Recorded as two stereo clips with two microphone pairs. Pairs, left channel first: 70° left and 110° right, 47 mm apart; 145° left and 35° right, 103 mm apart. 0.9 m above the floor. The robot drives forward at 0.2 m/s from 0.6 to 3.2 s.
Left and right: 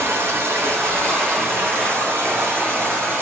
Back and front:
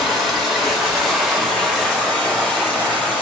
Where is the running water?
120° right, 1.1 m; by 3.2 s 140° right, 1.4 m.